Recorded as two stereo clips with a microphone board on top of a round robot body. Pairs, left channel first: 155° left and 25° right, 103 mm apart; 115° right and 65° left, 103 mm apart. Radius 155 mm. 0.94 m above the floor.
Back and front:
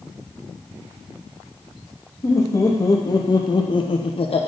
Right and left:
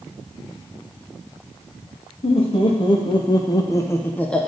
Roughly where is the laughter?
Behind right.